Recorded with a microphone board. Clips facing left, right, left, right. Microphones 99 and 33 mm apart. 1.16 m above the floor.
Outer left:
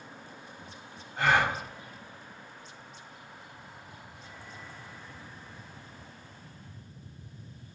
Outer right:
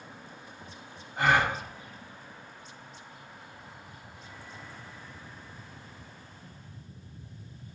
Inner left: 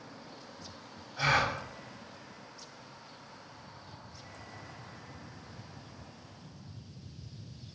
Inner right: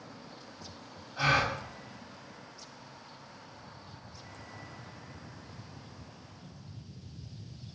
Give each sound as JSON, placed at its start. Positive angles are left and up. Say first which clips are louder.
{"t": 1.2, "sound": "a gasp", "louder": "outer right 1 dB, inner right 1 dB", "side_deg": -10, "distance_m": 1.8}